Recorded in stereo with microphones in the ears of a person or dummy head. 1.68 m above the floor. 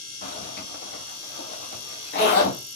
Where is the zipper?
50° left (ahead or behind), 1.4 m.